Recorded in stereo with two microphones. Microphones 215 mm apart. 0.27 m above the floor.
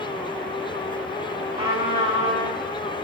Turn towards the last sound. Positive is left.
turn(degrees=-25)  # may be behind; listen again after turning